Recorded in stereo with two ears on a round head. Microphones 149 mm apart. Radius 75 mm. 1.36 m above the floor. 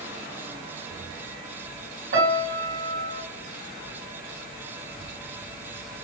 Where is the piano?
65° right (ahead or behind), 1.6 m.